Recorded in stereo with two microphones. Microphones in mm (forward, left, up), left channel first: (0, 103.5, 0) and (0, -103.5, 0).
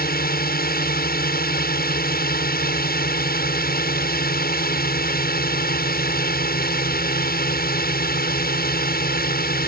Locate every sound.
0.0 s a drone: 45° left (ahead or behind)